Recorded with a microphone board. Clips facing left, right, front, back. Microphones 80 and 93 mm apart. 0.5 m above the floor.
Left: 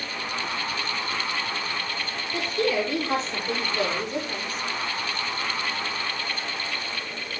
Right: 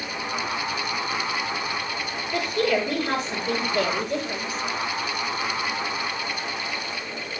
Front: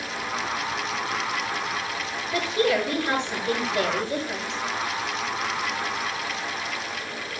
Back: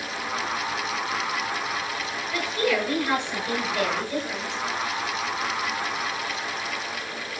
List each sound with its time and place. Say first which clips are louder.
2.3 s a woman speaking: right 2 dB, front 2 dB; 65° right, 8 m